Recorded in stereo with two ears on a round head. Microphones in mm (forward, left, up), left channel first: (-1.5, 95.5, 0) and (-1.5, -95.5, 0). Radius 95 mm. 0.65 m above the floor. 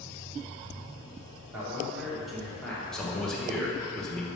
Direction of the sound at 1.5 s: 10° right (ahead or behind).